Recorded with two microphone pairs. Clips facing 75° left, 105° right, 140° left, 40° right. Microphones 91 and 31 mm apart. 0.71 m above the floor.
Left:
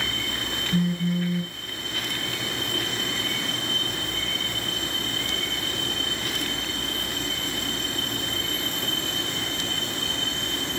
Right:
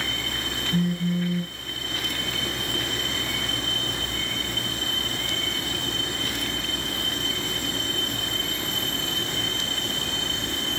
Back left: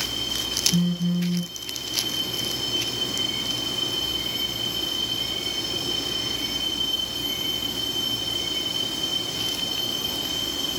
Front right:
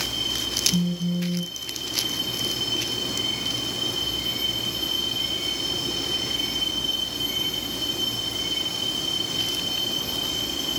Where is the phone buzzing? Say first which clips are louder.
Even, back left 1 dB; 160° left, 4.5 m.